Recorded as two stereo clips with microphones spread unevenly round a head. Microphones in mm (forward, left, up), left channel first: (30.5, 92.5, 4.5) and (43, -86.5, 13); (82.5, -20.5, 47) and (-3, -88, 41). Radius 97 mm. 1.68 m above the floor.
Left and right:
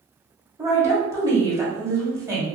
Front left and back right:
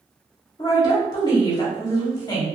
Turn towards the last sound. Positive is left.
turn(degrees=-15)